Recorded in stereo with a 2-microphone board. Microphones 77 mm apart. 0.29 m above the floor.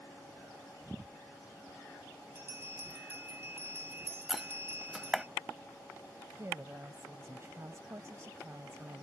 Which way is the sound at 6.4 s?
40° right (ahead or behind).